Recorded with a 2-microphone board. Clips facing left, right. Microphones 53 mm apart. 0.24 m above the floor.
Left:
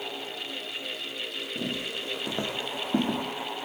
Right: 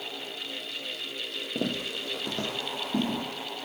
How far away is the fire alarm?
I don't hear a fire alarm.